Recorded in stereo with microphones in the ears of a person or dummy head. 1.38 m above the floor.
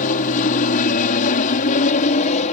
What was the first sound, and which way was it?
An aircraft, 40° left (ahead or behind).